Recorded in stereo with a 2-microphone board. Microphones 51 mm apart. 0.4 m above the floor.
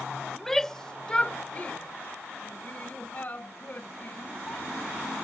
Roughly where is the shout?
Centre.